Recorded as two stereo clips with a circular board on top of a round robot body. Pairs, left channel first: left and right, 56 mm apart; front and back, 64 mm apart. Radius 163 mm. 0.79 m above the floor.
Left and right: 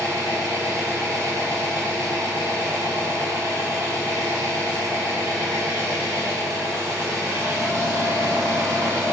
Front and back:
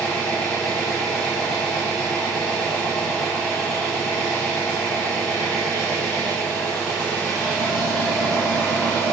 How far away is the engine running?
About 1.4 m.